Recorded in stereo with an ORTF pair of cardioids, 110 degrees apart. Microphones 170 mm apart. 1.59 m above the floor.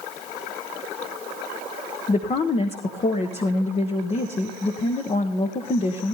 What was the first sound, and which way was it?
A woman speaking, 35° left.